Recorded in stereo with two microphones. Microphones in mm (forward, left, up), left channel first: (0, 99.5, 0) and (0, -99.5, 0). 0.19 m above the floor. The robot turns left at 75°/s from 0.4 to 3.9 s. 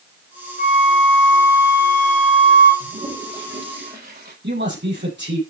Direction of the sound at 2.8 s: 35° right (ahead or behind).